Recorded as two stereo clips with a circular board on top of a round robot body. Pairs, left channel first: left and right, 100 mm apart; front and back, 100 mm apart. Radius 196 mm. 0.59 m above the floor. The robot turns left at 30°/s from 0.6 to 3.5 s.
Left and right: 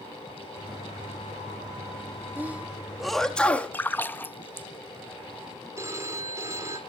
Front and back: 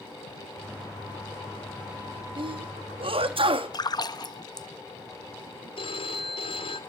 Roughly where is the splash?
Ahead left.